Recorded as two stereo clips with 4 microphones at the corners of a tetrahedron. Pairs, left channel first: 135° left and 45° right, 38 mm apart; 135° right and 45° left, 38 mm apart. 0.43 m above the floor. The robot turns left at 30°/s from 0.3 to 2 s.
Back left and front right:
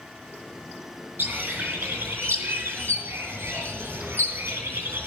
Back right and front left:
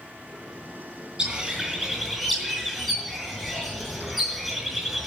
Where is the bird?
20° right, 5 m; by 5.1 s 45° right, 5 m.